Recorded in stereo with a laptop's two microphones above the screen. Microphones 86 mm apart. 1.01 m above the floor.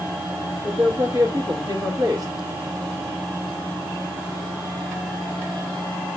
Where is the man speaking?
40° right (ahead or behind), 1.0 m.